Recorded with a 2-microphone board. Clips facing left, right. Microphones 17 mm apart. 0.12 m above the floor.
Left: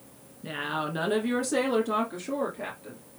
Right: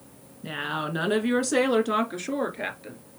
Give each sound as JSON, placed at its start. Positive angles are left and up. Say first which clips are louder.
{"t": 0.4, "sound": "a woman speaking", "louder": "right 1 dB", "side_deg": -10, "distance_m": 1.4}